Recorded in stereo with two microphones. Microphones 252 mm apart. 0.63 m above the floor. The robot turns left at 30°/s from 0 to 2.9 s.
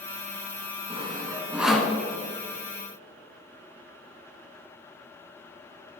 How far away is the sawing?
About 1.0 m.